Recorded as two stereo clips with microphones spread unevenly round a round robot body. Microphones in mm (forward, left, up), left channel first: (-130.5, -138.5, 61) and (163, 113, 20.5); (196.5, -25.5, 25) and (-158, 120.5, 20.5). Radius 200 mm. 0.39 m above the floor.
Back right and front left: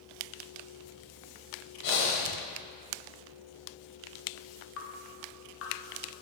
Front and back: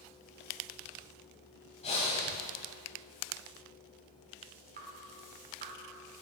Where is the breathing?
95° right, 1.1 m.